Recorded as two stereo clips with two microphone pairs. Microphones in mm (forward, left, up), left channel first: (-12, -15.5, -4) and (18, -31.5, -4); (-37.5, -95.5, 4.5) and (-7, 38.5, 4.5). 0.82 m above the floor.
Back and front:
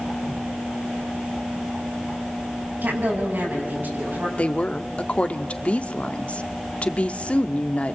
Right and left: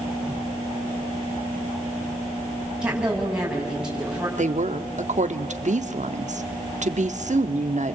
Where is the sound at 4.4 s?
105° left, 1.4 m.